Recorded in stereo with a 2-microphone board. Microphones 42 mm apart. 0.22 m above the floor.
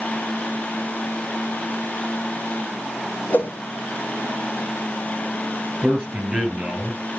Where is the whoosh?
45° left (ahead or behind), 2.5 m.